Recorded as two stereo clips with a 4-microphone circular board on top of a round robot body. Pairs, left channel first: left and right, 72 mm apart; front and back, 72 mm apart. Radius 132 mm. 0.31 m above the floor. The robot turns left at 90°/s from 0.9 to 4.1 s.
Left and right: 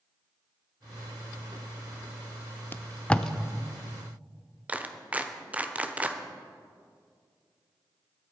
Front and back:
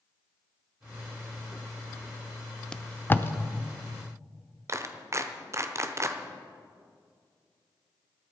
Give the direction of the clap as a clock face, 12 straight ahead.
5 o'clock.